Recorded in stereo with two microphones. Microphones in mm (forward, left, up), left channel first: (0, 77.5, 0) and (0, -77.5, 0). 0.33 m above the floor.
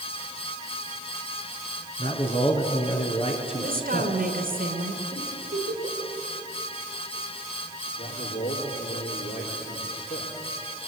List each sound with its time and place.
2.0 s a man speaking: 35° left (ahead or behind), 4 m
3.6 s a woman speaking: 70° right (ahead or behind), 3 m
5.1 s a giggle: 65° right (ahead or behind), 8.5 m
8.0 s a man speaking: 75° left (ahead or behind), 7 m